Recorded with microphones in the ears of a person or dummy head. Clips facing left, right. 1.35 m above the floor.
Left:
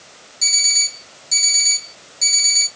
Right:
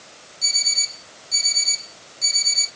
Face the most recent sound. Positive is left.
turn(degrees=55)  # may be behind; listen again after turning